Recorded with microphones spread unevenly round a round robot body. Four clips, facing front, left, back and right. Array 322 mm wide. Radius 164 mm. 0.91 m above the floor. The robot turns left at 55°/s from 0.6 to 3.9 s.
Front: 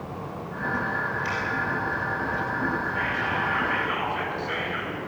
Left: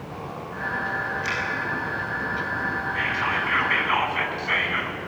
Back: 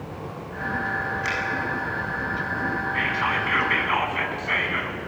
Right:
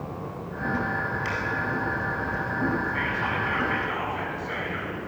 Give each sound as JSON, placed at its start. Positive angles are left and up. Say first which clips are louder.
{"t": 1.2, "sound": "a finger snap", "louder": "left 1 dB, back 1 dB", "azimuth_deg": -165, "distance_m": 7.0}
{"t": 2.9, "sound": "whispering", "louder": "left 2 dB, back 2 dB", "azimuth_deg": 175, "distance_m": 7.0}